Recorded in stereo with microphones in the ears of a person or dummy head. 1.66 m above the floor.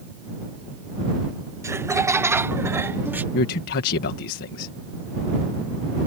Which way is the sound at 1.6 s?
20° right (ahead or behind).